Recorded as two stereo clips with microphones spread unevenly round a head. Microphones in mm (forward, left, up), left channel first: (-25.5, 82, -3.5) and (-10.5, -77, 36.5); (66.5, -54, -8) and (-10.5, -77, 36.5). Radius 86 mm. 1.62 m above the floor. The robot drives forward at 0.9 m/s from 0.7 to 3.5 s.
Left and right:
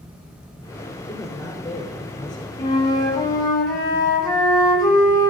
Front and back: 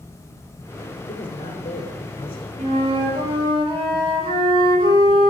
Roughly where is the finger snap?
I don't hear a finger snap.